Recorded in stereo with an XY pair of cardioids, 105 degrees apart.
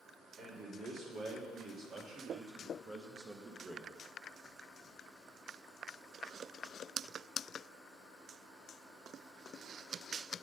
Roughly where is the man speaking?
Ahead right.